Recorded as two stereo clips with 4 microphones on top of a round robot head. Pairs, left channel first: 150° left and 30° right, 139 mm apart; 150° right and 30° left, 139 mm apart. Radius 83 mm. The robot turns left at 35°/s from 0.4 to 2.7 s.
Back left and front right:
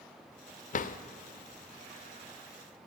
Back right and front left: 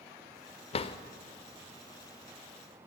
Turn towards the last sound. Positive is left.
turn(degrees=100)